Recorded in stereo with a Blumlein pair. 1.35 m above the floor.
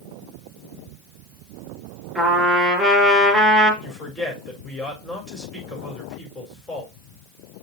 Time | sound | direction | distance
2.1 | a trumpet | 5° right | 4.5 m
3.8 | a woman speaking | 5° left | 4.5 m